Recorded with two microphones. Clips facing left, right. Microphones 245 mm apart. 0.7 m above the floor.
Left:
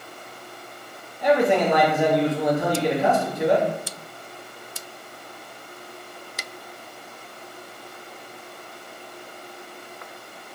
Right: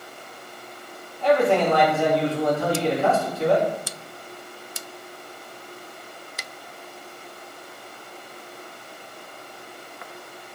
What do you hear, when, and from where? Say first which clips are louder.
1.2 s a man speaking: even; 15° left (ahead or behind), 0.7 m